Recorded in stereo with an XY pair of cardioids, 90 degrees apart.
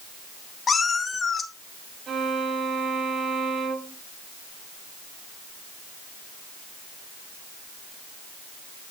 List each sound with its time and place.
0.7 s a cat meowing: 45° left, 2.5 m
2.1 s a violin: 60° right, 8.5 m